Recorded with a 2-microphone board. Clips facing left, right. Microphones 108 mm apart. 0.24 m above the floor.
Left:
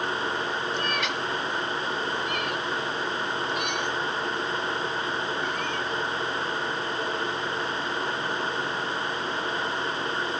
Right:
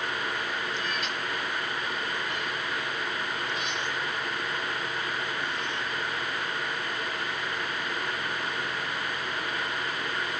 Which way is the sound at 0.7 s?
75° left (ahead or behind).